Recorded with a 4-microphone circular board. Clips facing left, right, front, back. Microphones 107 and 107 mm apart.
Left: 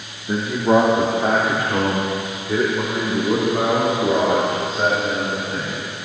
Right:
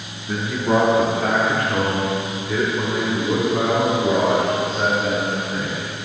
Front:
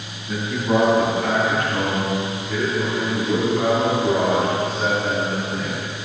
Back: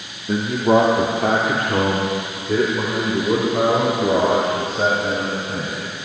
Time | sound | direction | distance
0.3 | a man speaking | 150° left | 1.3 m